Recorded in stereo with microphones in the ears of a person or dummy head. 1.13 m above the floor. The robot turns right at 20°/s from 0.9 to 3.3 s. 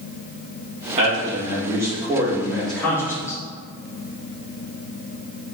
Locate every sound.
1.0 s a man speaking: 35° right, 1.6 m; by 3.4 s 15° left, 1.6 m